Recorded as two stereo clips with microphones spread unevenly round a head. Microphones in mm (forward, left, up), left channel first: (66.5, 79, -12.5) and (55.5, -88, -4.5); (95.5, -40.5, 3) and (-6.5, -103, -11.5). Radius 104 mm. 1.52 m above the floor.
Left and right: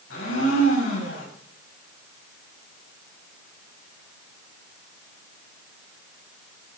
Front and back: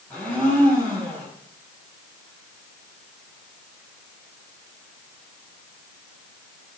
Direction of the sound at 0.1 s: 115° left.